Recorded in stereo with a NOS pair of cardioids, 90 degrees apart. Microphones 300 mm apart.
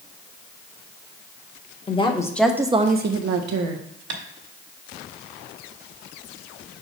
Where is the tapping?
55° right, 1.8 m.